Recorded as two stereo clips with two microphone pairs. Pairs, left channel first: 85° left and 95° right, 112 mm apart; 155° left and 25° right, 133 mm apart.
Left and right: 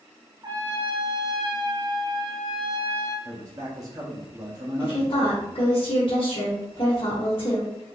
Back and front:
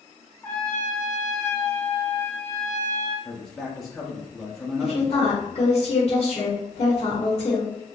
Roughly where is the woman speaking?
Behind left.